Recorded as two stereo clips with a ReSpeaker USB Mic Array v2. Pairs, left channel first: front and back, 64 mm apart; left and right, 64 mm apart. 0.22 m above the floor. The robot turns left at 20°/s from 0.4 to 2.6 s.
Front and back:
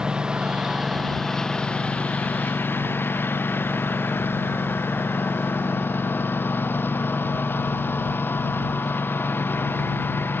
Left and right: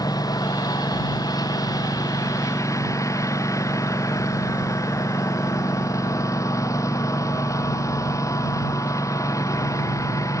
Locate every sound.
0.0 s a lawn mower: 100° left; by 10.4 s 55° left